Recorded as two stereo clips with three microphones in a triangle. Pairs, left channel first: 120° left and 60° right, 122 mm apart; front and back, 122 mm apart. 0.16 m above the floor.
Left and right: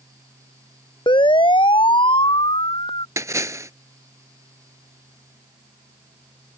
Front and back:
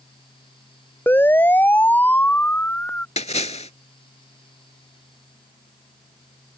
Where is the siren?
75° left; by 3.1 s 80° left.